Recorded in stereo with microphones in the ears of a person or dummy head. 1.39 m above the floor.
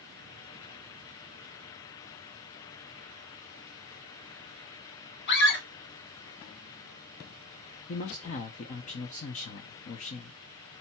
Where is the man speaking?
40° left (ahead or behind), 0.6 m.